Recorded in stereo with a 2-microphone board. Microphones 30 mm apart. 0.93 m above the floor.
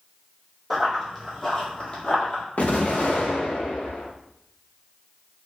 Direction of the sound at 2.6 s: 55° left (ahead or behind).